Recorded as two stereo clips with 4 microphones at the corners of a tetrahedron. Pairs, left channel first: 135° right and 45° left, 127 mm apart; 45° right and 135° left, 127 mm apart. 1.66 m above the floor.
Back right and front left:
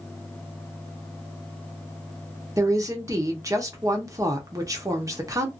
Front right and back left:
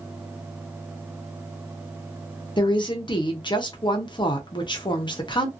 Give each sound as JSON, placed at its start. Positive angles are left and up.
{"t": 2.6, "sound": "a woman speaking", "azimuth_deg": -5, "distance_m": 0.8}